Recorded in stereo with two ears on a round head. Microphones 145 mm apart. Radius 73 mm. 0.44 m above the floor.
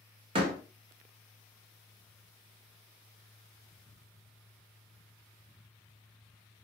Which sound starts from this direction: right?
A door slam, at 0.3 s.